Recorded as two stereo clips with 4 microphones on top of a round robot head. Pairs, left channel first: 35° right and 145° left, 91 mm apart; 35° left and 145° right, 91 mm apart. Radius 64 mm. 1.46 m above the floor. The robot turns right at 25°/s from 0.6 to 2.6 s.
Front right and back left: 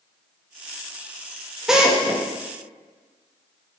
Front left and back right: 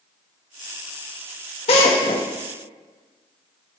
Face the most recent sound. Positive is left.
turn(degrees=80)